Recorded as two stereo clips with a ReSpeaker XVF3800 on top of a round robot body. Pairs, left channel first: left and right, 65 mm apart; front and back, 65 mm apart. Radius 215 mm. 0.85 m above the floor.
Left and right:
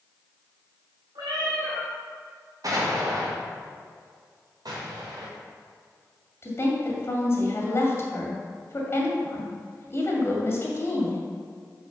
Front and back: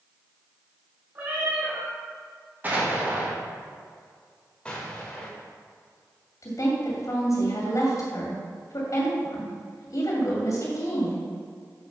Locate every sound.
1.1 s a cat meowing: 120° right, 0.6 m
2.6 s an explosion: 115° right, 2.5 m
4.7 s an explosion: 75° right, 1.4 m
6.4 s a woman speaking: 40° left, 2 m